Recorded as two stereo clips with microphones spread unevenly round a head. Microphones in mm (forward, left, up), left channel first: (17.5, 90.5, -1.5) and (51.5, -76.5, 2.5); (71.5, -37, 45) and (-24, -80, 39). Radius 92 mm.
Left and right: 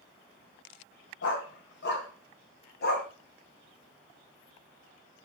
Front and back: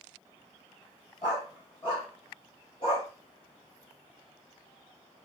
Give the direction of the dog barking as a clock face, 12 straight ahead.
9 o'clock.